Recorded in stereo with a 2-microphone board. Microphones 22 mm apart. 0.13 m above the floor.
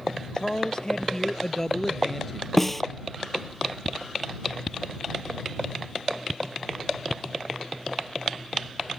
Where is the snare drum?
5° left (ahead or behind).